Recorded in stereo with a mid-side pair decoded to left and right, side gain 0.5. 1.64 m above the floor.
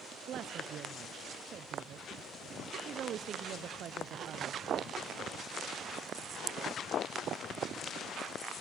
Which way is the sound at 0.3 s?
55° right.